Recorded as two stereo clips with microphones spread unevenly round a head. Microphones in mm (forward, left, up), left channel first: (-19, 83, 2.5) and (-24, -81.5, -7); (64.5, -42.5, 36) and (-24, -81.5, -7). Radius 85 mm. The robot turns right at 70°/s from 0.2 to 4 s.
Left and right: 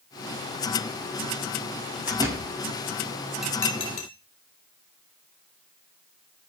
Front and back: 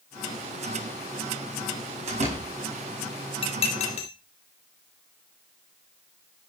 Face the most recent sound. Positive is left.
turn(degrees=35)